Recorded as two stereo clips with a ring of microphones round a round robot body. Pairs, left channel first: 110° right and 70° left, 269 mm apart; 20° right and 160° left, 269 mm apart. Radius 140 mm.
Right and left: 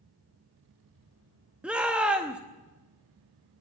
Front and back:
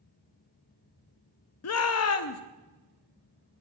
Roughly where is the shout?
Ahead.